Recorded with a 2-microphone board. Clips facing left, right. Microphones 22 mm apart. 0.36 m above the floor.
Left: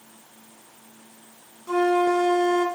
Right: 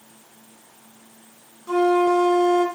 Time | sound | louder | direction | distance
1.7 | a flute | right 2 dB | 5° right (ahead or behind) | 1.9 m